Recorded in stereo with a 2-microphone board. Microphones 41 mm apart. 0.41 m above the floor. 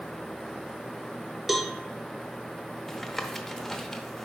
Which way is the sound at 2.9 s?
5° left (ahead or behind).